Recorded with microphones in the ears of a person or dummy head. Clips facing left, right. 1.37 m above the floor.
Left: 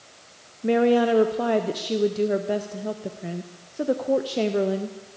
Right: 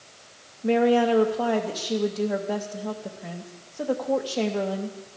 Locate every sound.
0.6 s a woman speaking: 25° left (ahead or behind), 0.7 m